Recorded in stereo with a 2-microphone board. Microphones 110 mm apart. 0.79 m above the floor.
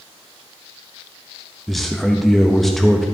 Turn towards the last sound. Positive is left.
turn(degrees=0)  # may be behind; listen again after turning